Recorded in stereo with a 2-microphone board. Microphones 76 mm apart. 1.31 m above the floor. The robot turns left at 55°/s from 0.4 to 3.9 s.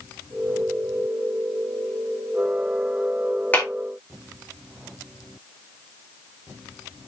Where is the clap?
25° left (ahead or behind), 3 m; by 3.7 s 15° left (ahead or behind), 3 m.